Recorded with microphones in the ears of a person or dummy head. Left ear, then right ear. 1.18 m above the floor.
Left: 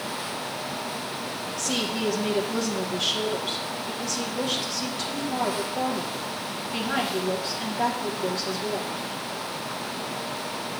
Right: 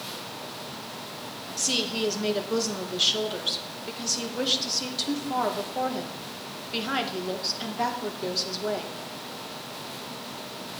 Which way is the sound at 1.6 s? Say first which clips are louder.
Right 2 dB; 50° right (ahead or behind).